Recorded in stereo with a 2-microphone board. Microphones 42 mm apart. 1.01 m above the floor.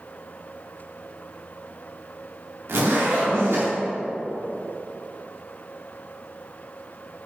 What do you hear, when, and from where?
2.7 s a zipper: 75° right (ahead or behind), 2 m